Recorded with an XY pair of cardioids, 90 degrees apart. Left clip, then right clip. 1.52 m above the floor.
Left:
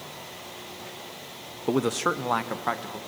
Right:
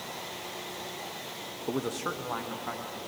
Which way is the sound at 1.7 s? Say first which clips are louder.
Left 8 dB; 50° left.